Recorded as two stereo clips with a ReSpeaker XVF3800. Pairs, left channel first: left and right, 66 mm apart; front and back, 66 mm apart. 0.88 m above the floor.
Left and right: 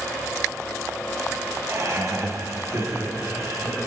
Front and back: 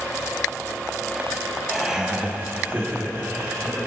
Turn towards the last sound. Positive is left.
turn(degrees=-130)